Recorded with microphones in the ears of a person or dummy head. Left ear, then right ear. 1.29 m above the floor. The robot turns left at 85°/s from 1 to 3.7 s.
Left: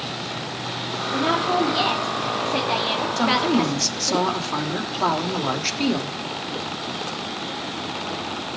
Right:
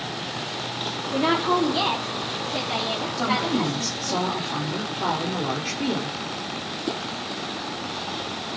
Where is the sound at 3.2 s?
115° left, 3 m; by 6.2 s 70° left, 3 m.